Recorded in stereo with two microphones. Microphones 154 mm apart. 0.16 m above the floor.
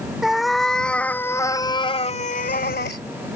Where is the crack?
I don't hear a crack.